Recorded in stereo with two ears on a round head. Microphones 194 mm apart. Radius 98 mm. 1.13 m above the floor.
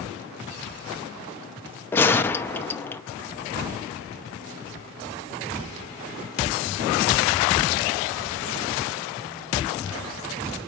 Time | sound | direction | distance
1.9 | a gunshot | 10° left (ahead or behind) | 0.5 m